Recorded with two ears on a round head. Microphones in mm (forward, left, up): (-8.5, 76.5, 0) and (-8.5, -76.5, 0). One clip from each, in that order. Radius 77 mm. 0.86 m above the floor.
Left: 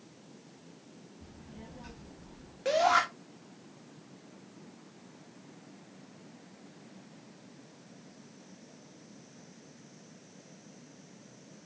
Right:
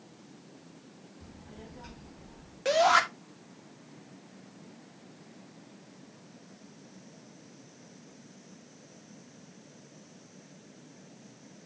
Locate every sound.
1.2 s a child speaking: 10° right (ahead or behind), 4 m; by 2.5 s centre (ahead or behind), 5 m
2.6 s a shout: 20° right (ahead or behind), 1.5 m